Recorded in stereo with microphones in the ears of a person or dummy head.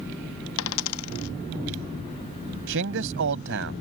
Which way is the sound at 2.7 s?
65° right (ahead or behind).